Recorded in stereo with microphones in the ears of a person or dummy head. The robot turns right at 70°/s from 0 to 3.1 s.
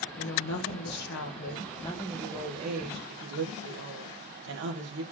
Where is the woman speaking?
40° left, 2.0 m; by 5.0 s 115° right, 2.0 m.